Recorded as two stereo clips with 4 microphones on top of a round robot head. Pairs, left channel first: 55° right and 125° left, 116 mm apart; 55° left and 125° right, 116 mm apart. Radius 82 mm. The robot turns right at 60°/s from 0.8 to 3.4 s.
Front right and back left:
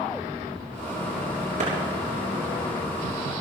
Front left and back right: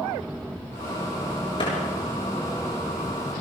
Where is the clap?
100° left, 6.5 m; by 1.7 s 105° left, 6.5 m.